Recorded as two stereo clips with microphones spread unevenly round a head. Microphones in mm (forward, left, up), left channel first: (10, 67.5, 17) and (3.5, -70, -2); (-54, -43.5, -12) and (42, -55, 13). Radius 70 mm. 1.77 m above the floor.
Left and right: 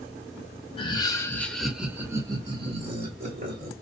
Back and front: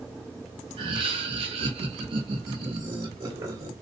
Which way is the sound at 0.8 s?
35° left.